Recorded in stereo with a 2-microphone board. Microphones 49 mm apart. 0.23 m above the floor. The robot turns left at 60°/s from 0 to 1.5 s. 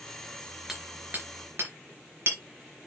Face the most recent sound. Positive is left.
turn(degrees=-55)  # may be behind; listen again after turning